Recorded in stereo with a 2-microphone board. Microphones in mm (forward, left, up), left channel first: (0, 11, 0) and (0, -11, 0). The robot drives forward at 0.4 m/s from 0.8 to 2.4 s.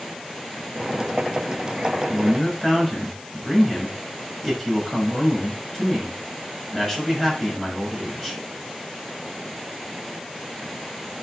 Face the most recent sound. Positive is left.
turn(degrees=10)  # may be behind; listen again after turning